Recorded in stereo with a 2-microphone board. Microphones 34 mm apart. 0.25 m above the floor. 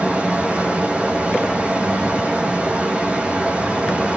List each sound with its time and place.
0.0 s running water: 30° right (ahead or behind), 4.5 m